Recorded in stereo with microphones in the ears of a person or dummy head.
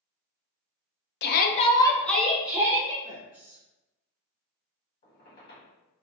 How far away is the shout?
About 0.5 m.